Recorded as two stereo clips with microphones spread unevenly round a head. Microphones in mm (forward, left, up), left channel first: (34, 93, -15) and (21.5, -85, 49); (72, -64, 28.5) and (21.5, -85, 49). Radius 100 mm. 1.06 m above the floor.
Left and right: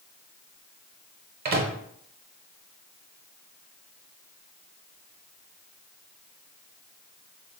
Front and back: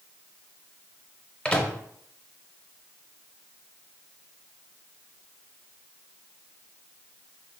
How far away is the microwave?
About 0.7 m.